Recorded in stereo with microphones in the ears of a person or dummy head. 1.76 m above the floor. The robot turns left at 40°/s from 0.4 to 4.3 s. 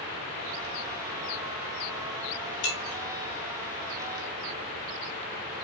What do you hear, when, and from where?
2.6 s breaking glass: 60° left (ahead or behind), 1.9 m; by 3.0 s 65° left (ahead or behind), 1.9 m